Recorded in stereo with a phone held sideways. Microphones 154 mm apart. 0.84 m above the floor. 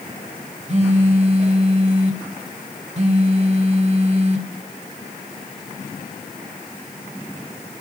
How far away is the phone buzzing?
About 0.9 m.